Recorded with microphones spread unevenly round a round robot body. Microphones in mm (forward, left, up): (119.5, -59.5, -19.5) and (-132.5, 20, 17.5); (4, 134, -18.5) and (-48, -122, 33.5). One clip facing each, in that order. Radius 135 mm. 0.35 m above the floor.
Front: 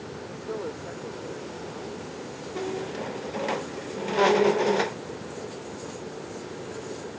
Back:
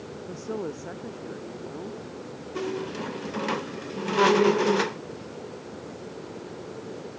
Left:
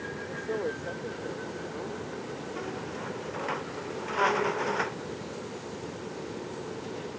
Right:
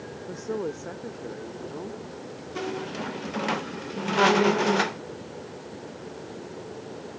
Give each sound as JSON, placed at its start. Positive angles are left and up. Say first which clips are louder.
{"t": 0.3, "sound": "a woman speaking", "louder": "back 2 dB, right 2 dB", "azimuth_deg": -155}
{"t": 2.5, "sound": "a squeak", "louder": "back 1 dB, right 9 dB", "azimuth_deg": -130}